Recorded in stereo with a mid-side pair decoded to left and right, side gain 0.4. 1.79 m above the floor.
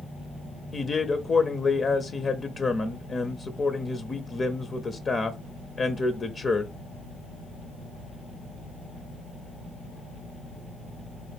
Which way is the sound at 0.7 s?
40° left.